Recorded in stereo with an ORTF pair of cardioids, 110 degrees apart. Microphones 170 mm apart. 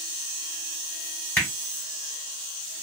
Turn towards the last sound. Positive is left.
turn(degrees=10)